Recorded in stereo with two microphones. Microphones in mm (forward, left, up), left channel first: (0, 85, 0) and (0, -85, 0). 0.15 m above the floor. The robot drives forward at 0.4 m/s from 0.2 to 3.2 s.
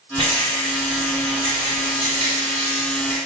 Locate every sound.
0.2 s a rattle: 30° right (ahead or behind), 1.4 m; by 3.2 s 25° right (ahead or behind), 1.7 m